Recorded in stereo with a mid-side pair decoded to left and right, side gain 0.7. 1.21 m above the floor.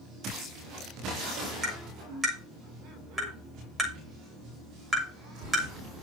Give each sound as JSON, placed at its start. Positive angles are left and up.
{"t": 1.6, "sound": "tapping", "azimuth_deg": -10, "distance_m": 6.5}